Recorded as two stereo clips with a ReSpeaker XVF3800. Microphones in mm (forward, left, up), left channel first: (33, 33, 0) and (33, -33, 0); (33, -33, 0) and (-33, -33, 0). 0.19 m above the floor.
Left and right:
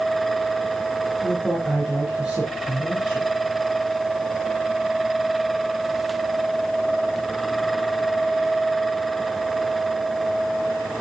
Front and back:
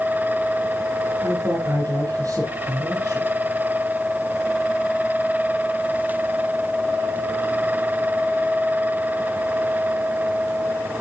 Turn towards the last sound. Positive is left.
turn(degrees=-170)